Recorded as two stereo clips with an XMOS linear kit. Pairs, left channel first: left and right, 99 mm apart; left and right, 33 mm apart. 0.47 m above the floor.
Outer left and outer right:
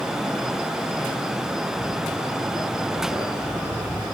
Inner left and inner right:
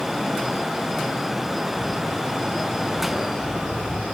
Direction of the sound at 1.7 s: 75° right (ahead or behind).